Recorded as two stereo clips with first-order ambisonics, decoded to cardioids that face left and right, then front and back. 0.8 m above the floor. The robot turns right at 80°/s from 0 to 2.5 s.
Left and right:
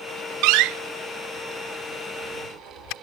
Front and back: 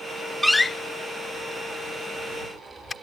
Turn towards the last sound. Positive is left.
turn(degrees=75)